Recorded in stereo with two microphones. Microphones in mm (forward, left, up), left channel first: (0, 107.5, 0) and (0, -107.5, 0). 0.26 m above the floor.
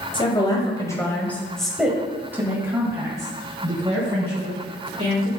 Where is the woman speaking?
25° left (ahead or behind), 1.6 m; by 5.3 s 30° right (ahead or behind), 3 m.